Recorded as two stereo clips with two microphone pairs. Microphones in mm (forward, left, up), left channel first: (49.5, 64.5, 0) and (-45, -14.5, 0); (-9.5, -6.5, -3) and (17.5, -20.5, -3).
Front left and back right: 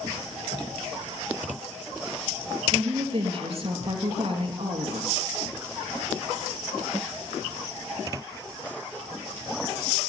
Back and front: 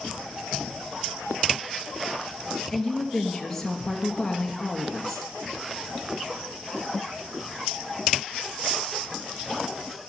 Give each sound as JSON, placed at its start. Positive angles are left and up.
{"t": 2.7, "sound": "a woman speaking", "azimuth_deg": -130, "distance_m": 2.0}